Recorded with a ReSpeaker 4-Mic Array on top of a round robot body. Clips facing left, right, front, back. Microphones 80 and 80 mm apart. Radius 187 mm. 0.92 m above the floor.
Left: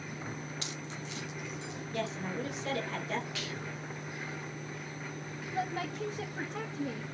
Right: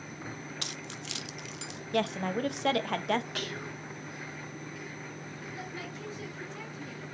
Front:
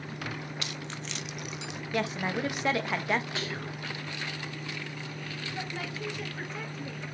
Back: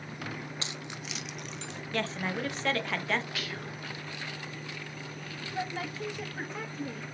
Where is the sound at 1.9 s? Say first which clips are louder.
Right 6 dB, front 2 dB; 75° right, 1.2 m.